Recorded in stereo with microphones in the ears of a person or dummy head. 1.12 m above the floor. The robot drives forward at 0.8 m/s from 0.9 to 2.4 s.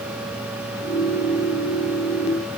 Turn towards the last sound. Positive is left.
No sound to turn to.